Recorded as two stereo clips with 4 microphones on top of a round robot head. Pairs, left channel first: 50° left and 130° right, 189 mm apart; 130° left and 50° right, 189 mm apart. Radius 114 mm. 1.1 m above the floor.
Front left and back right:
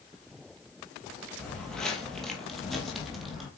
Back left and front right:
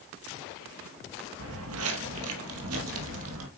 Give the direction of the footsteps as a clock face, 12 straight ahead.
1 o'clock.